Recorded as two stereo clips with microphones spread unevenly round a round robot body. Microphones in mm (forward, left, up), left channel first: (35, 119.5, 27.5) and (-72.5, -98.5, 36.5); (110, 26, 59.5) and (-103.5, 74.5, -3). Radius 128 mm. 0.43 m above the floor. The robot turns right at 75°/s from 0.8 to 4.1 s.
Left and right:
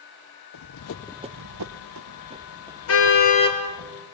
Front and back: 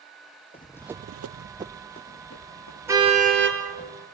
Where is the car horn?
90° left, 4.5 m; by 3.6 s 145° left, 4.5 m.